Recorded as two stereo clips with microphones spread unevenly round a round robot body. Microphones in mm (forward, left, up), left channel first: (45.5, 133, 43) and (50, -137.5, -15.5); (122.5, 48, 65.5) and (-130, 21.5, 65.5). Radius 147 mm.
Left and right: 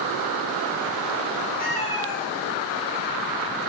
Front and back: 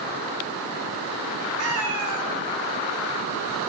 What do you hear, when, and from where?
1.6 s a cat meowing: 155° left, 0.8 m; by 3.6 s 135° right, 1.0 m